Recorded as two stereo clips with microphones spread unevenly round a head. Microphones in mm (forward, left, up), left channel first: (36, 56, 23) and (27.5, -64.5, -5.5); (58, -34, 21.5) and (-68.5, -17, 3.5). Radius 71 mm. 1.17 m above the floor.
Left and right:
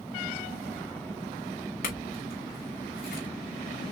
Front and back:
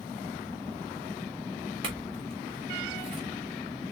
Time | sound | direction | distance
1.8 | a clink | 115° left | 2.5 m